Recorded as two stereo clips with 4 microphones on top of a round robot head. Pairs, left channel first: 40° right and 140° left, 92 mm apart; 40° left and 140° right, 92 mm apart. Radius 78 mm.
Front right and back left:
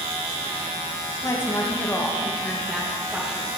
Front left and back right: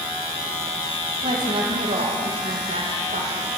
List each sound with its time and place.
1.2 s a woman speaking: 100° right, 2.5 m; by 3.5 s 140° right, 3 m